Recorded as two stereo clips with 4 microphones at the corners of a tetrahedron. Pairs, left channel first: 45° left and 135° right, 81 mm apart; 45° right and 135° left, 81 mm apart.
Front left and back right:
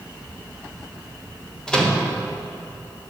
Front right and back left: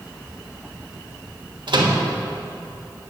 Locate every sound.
1.7 s a microwave: 125° left, 1.3 m